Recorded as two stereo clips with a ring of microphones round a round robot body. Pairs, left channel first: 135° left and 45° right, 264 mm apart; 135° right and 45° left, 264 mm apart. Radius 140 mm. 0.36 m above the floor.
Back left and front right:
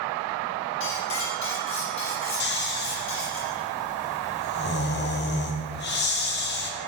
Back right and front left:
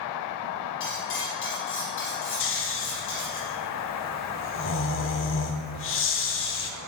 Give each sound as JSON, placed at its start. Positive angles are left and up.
{"t": 0.8, "sound": "cutlery clinking", "azimuth_deg": 180, "distance_m": 6.0}
{"t": 2.4, "sound": "snoring", "azimuth_deg": -175, "distance_m": 1.9}